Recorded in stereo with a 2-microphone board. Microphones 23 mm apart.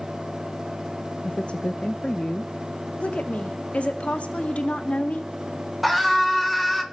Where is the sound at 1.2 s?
60° left (ahead or behind), 0.7 m.